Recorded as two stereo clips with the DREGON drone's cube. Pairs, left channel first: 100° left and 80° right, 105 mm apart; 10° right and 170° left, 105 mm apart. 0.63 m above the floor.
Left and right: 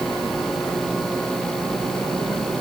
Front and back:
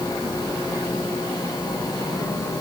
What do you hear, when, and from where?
Only background noise.